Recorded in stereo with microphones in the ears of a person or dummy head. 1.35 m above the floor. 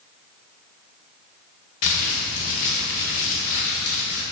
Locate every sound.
1.8 s crumpling: 50° left (ahead or behind), 0.7 m